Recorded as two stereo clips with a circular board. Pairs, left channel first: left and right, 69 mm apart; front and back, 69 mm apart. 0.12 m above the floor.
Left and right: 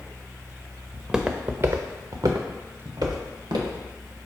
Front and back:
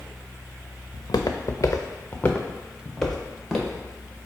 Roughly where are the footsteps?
Ahead.